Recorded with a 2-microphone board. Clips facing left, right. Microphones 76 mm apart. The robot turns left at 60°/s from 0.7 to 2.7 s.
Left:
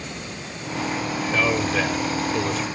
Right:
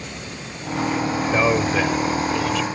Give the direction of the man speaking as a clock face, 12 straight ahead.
5 o'clock.